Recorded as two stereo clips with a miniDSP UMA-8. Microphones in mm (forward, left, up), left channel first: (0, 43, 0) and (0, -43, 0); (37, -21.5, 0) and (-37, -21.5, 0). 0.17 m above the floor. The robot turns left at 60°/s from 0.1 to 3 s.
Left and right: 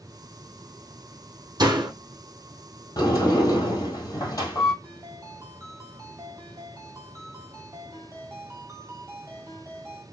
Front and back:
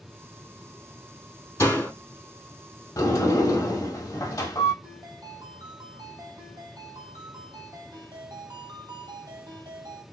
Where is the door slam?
55° right, 3 m; by 1.9 s 70° right, 3 m.